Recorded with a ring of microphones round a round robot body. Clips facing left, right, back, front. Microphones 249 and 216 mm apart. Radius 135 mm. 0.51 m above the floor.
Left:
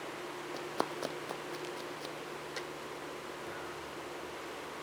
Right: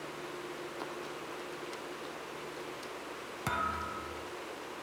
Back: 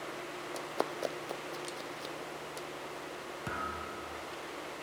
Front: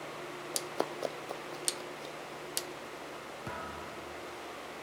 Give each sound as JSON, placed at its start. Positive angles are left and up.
{"t": 0.5, "sound": "running footsteps", "azimuth_deg": 80, "distance_m": 1.6}
{"t": 3.5, "sound": "a thud", "azimuth_deg": -100, "distance_m": 1.0}